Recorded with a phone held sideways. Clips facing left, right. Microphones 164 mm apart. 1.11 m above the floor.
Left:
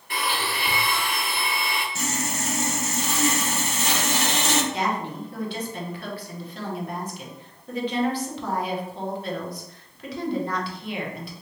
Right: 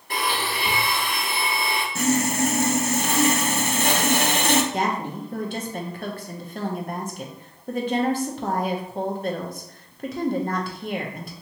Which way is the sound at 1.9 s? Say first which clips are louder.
Right 8 dB; 55° right (ahead or behind).